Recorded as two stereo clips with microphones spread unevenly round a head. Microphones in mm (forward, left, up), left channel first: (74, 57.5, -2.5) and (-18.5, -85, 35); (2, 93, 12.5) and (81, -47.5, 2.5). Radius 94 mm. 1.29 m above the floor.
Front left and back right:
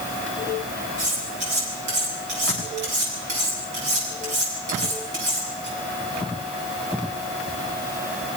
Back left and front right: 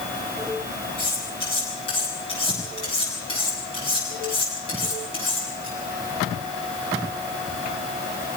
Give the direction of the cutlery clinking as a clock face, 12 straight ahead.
6 o'clock.